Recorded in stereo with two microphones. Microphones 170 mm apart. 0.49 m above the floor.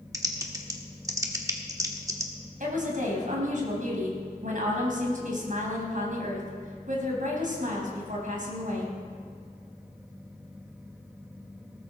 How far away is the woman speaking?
About 3.5 m.